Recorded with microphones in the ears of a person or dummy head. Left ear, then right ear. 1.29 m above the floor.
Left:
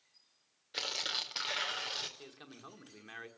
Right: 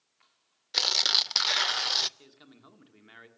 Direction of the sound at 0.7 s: 40° right (ahead or behind).